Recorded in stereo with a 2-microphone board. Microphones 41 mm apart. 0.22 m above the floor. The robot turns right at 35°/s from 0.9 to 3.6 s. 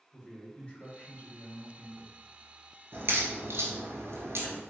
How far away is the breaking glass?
I don't hear breaking glass.